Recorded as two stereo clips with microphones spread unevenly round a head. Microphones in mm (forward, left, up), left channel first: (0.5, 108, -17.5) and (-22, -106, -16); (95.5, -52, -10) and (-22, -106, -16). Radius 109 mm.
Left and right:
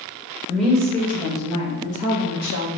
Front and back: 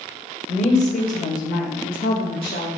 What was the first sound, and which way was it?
A woman speaking, 5° right.